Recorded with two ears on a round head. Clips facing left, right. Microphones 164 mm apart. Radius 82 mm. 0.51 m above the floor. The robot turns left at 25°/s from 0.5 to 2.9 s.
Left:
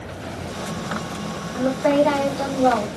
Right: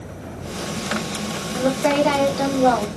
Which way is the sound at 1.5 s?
130° right.